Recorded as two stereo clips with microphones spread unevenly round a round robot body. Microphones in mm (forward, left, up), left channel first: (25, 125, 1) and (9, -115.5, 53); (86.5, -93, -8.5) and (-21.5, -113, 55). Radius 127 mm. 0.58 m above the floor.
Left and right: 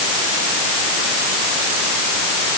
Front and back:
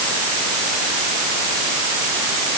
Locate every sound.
Only background noise.